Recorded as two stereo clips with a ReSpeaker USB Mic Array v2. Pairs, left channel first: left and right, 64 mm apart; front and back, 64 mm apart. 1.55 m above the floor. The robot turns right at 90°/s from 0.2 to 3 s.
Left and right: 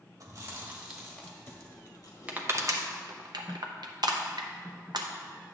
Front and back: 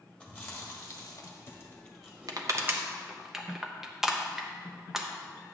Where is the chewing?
70° right, 1.4 m; by 2.8 s 160° left, 1.4 m.